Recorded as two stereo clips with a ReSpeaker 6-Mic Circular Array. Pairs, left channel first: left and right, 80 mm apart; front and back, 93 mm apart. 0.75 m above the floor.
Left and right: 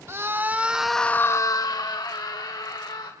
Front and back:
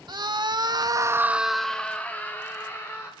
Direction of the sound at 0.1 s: 145° right.